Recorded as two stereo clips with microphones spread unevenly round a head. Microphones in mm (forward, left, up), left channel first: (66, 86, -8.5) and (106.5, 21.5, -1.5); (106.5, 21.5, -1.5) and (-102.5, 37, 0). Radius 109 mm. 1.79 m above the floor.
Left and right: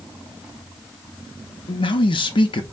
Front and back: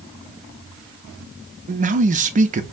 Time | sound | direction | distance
1.7 | a man speaking | 120° left | 0.6 m